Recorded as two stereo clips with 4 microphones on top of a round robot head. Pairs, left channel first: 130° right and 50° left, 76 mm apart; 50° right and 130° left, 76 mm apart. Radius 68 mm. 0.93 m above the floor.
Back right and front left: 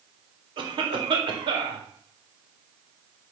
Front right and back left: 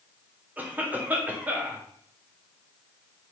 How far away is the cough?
About 3.5 m.